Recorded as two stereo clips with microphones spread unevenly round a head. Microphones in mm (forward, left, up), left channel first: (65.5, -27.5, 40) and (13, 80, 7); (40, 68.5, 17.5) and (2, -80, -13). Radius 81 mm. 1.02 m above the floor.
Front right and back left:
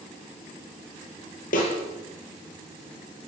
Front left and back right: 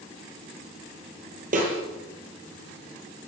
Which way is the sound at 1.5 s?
65° right.